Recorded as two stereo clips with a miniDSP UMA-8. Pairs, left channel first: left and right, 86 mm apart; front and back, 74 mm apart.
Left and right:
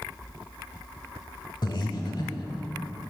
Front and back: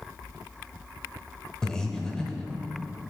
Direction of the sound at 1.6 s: 80° left.